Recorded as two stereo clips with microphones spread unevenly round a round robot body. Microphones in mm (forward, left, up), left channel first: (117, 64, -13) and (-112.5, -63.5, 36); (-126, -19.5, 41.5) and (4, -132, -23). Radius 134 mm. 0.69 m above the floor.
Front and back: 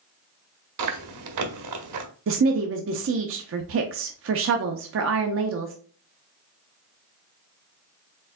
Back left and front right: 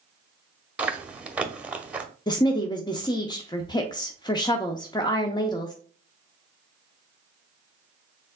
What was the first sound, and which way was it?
Chewing, 120° right.